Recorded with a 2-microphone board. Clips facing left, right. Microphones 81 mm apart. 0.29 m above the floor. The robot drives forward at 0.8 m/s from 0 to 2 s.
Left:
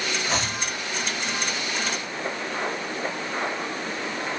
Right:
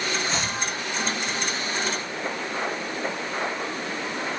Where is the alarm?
I don't hear an alarm.